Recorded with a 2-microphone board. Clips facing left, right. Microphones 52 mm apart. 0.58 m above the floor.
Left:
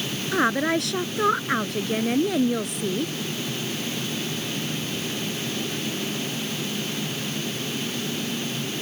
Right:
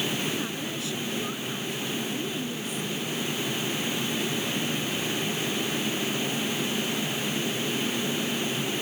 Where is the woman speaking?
60° left (ahead or behind).